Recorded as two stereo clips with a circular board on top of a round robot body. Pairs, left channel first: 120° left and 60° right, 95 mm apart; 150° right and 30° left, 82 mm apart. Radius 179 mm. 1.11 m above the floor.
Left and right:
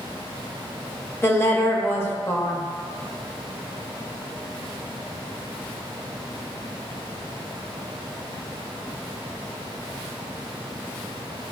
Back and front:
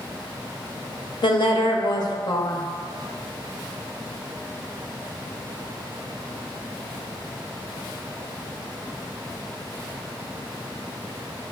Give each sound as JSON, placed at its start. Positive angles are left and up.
{"t": 1.2, "sound": "a woman speaking", "azimuth_deg": -175, "distance_m": 0.7}